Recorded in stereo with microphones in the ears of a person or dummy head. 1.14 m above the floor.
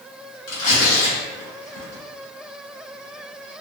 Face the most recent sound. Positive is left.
turn(degrees=75)  # may be behind; listen again after turning